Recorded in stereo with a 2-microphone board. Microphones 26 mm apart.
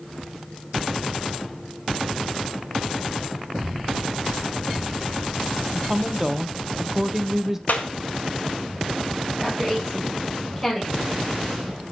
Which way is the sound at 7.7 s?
75° left (ahead or behind).